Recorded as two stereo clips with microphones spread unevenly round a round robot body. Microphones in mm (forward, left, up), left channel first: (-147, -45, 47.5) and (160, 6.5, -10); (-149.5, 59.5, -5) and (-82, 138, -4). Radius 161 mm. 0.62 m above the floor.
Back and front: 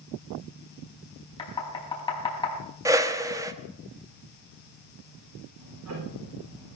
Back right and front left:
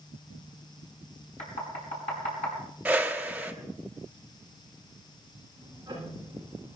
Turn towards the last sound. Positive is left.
turn(degrees=-30)